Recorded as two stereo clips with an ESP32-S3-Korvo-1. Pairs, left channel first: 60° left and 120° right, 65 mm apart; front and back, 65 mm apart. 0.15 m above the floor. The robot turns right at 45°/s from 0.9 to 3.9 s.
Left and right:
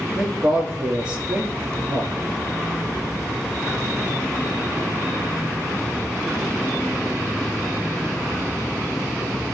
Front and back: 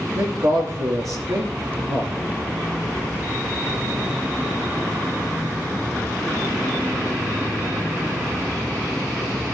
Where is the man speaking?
165° left, 3 m; by 2.1 s 140° right, 3 m.